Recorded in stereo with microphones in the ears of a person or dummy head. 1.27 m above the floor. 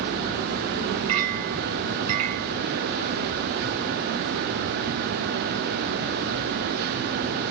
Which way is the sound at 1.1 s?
40° right (ahead or behind).